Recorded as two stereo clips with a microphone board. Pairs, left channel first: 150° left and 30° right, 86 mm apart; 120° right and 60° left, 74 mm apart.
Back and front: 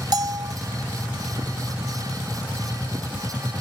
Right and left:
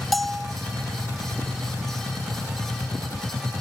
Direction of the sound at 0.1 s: 30° right.